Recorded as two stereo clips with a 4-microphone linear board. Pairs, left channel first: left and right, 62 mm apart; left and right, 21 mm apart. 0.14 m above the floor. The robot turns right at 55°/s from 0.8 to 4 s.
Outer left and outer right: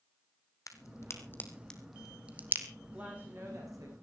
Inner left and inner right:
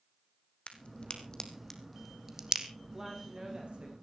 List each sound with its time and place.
0.7 s a crack: 60° left (ahead or behind), 2 m; by 2.7 s 40° right (ahead or behind), 2 m
2.9 s a woman speaking: 160° right, 7.5 m; by 3.9 s 105° right, 7.5 m